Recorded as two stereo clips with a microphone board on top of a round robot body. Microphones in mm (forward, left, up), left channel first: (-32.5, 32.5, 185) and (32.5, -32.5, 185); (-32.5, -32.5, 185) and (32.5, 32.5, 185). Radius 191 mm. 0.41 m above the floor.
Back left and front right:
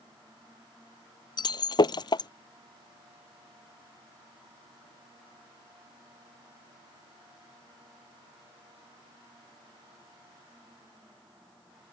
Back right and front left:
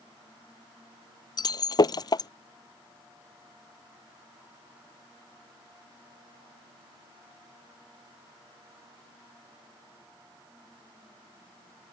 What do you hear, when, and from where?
1.4 s breaking glass: straight behind